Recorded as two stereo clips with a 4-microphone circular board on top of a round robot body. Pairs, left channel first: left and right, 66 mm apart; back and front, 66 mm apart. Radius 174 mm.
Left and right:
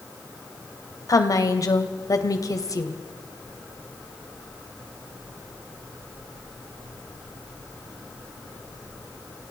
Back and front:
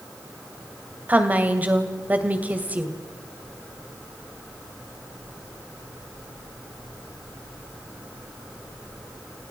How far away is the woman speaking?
About 2.5 m.